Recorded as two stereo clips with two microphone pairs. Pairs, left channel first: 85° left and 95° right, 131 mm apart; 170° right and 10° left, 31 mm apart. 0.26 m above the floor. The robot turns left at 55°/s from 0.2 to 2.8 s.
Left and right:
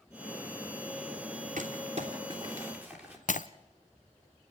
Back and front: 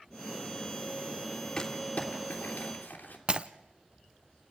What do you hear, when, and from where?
1.6 s crumpling: 105° right, 3 m; by 3.2 s 175° right, 3 m
3.3 s breaking glass: 70° left, 0.6 m